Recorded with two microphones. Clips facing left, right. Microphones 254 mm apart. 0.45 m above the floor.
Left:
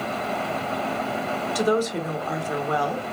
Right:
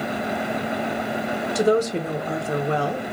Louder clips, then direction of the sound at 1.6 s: Right 3 dB; 25° right (ahead or behind).